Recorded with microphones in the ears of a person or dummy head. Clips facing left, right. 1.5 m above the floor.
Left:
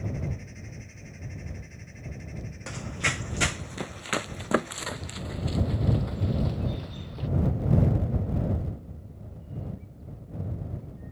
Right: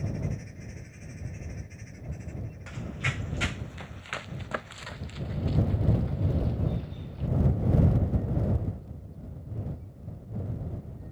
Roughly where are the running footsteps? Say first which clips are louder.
Left 3 dB; left.